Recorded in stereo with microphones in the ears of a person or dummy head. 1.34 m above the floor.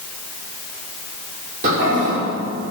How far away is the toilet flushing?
About 4.5 m.